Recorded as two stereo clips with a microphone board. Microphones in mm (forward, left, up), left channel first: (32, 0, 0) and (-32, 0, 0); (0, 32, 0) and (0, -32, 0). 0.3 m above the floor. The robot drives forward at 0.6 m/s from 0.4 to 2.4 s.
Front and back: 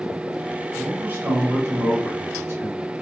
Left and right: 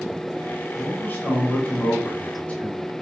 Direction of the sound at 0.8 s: 125° left.